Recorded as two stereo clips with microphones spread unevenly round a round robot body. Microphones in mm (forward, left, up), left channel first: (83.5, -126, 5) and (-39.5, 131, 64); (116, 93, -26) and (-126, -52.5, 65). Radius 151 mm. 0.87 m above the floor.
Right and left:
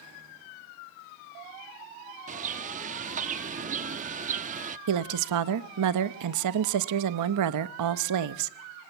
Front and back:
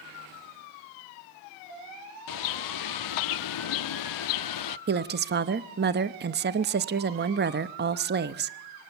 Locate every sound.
2.3 s a bird: 50° left, 0.7 m
4.9 s a woman speaking: 150° left, 0.8 m